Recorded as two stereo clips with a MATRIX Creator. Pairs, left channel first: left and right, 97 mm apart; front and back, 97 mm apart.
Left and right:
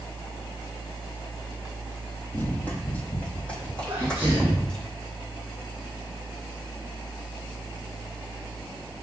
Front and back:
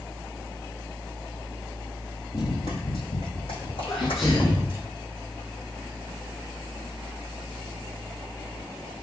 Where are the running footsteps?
20° left, 2 m; by 4.9 s 5° left, 3.5 m.